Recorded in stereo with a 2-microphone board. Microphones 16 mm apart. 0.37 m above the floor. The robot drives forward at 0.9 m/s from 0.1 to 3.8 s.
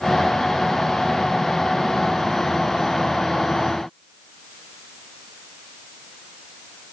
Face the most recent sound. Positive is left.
No sound to turn to.